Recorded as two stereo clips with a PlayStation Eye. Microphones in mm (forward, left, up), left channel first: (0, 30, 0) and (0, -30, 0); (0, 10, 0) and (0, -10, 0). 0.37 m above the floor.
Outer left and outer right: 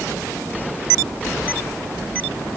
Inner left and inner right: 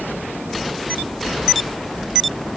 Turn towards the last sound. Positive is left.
No sound to turn to.